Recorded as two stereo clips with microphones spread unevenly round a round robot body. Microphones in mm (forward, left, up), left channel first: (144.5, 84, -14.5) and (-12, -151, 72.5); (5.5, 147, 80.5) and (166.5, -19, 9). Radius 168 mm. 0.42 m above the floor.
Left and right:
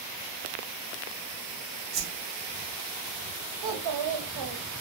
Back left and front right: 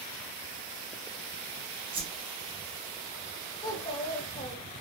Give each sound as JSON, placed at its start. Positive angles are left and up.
{"t": 1.9, "sound": "a whoosh", "azimuth_deg": -60, "distance_m": 0.8}
{"t": 3.6, "sound": "a child speaking", "azimuth_deg": -140, "distance_m": 0.7}